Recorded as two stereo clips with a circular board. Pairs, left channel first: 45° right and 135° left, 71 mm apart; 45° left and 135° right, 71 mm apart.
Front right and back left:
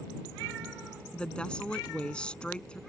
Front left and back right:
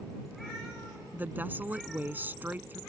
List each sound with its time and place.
1.1 s a woman speaking: 105° right